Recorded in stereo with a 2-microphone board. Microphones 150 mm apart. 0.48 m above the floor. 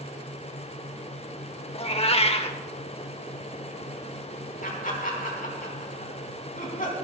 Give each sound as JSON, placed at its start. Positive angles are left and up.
{"t": 1.7, "sound": "a cat meowing", "side_deg": 40, "distance_m": 0.9}
{"t": 4.6, "sound": "laughter", "side_deg": 65, "distance_m": 4.0}